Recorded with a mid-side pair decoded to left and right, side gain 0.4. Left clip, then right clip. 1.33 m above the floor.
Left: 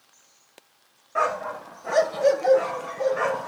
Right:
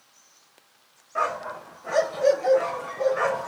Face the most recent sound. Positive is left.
turn(degrees=-5)